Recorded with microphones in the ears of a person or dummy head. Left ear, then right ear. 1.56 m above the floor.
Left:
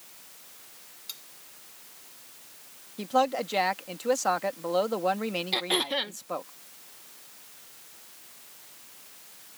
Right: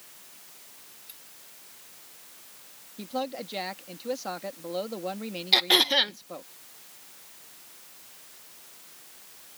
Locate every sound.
1.1 s cutlery clinking: 50° left (ahead or behind)
3.0 s a woman speaking: 35° left (ahead or behind)
5.5 s throat clearing: 25° right (ahead or behind)